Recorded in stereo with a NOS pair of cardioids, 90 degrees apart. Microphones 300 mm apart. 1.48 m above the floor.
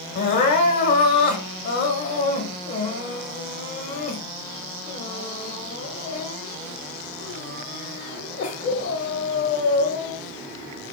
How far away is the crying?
About 1.4 m.